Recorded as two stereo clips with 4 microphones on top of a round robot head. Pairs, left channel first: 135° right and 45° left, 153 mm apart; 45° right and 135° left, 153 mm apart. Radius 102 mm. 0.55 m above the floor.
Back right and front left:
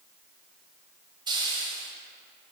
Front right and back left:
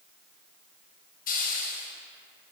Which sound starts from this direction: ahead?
A hiss, at 1.3 s.